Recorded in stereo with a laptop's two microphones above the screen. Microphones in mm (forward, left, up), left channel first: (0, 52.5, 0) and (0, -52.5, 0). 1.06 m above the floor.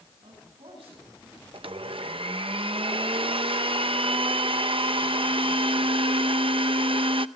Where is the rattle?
No rattle in this recording.